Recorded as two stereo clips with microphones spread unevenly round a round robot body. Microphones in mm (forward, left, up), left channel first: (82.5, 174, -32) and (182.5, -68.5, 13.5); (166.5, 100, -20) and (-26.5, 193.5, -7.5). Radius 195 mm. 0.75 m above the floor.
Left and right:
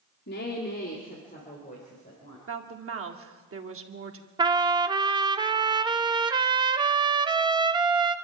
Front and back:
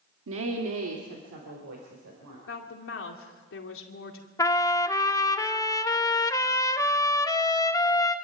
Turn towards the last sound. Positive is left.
turn(degrees=5)